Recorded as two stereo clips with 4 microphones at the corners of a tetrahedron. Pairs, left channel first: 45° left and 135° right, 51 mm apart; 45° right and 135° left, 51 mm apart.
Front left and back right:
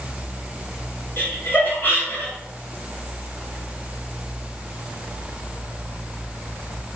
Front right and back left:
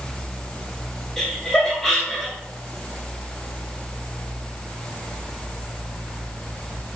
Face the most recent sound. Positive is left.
turn(degrees=30)